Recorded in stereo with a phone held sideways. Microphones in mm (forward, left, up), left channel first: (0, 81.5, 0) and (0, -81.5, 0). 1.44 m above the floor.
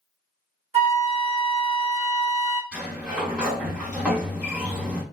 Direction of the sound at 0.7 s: 40° right (ahead or behind).